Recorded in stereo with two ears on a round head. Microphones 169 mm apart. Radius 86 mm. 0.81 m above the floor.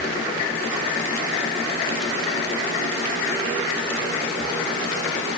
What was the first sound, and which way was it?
Only background noise.